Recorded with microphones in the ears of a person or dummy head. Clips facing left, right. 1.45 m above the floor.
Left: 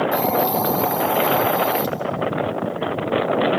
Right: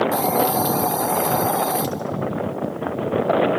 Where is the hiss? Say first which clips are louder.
Even; 5° right (ahead or behind), 0.8 m.